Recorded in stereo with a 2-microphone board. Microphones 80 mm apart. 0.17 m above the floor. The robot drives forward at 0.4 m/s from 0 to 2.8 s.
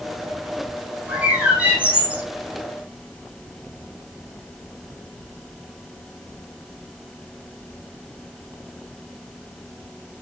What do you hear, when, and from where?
1.1 s a bird: 20° right (ahead or behind), 8.5 m